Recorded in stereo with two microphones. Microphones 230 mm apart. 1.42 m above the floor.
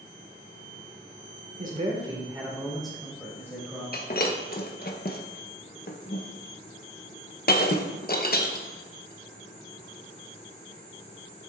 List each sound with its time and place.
1.6 s a man speaking: 40° right (ahead or behind), 1.4 m; by 3.8 s 15° left (ahead or behind), 3 m
3.9 s breaking glass: 45° left (ahead or behind), 0.7 m